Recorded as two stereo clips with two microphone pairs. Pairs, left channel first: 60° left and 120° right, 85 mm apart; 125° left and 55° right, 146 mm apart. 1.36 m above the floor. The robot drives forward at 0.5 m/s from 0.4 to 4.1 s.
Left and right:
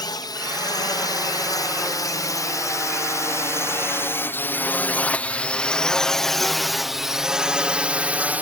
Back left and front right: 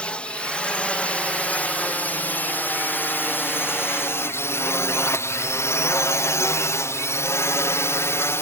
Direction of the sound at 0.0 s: 45° left.